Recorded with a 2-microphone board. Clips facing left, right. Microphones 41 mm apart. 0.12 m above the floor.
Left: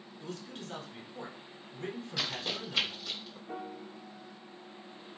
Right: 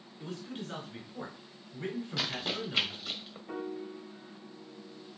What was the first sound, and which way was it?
A man speaking, 20° right (ahead or behind).